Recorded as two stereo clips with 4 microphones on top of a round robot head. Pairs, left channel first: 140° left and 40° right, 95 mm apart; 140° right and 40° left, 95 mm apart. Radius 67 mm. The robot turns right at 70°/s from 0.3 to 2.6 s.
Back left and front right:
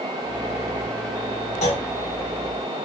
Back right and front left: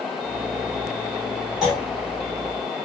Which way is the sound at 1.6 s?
125° left.